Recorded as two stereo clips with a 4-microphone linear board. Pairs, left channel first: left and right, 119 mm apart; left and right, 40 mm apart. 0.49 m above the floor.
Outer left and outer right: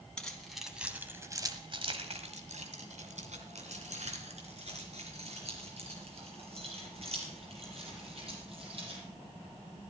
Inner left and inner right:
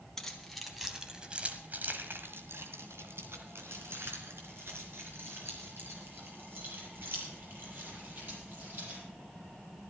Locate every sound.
0.2 s keys jangling: 5° left (ahead or behind), 2.5 m; by 9.0 s 55° right (ahead or behind), 9.5 m